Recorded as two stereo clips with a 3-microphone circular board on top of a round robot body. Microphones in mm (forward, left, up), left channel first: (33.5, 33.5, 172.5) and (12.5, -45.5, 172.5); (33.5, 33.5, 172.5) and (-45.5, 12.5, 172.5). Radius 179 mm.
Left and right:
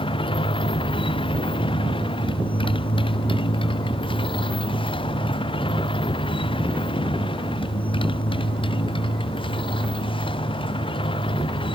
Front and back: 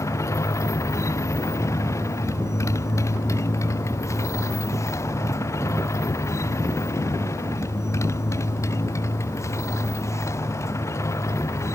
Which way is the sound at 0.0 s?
70° left.